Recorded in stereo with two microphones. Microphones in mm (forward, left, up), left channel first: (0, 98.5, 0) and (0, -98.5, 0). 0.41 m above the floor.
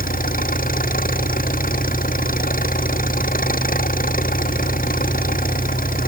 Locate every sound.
0.0 s an engine running: 45° left (ahead or behind)